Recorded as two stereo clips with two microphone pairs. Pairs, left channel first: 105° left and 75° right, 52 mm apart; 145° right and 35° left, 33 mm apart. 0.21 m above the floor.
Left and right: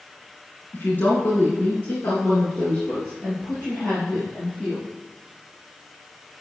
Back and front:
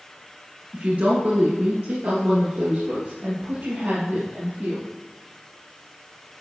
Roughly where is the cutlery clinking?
No cutlery clinking in this recording.